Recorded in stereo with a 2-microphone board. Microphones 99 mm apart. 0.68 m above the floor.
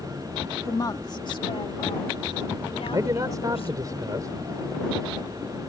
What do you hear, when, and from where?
0.7 s a woman speaking: 30° left (ahead or behind); by 3.9 s 75° left (ahead or behind)
2.9 s a man speaking: 40° right (ahead or behind)